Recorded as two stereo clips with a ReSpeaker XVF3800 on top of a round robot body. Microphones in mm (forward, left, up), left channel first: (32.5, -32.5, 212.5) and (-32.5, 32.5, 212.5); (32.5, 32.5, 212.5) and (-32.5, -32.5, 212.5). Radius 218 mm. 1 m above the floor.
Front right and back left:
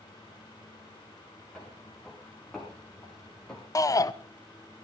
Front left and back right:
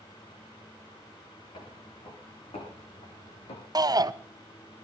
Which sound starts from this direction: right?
A shout, at 3.8 s.